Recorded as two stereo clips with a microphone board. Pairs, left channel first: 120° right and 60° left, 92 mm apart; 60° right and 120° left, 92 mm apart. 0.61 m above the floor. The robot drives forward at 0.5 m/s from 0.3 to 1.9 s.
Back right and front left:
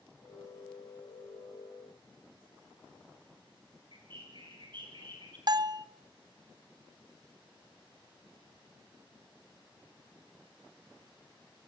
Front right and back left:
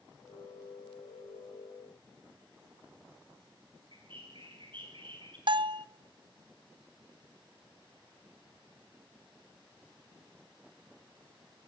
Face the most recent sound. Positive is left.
turn(degrees=100)